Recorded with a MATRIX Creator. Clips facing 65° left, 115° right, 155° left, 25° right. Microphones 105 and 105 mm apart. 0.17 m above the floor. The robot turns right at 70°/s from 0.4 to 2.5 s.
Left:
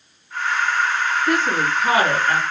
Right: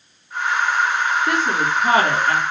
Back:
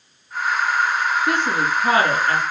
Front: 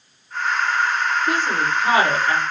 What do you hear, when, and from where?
1.3 s a woman speaking: 165° left, 3 m; by 2.4 s 115° right, 3 m